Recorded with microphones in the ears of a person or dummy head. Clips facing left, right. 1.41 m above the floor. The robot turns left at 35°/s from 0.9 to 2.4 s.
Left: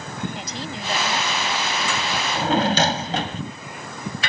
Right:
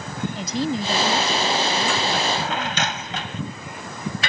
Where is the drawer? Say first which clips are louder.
Left 3 dB; 30° left (ahead or behind); by 3.4 s 40° left (ahead or behind).